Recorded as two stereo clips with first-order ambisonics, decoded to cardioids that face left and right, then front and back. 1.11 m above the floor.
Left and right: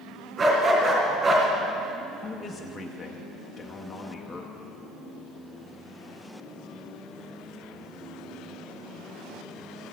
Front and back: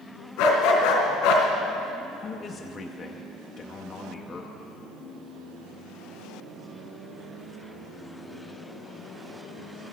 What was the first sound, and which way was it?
A dog barking, 20° right.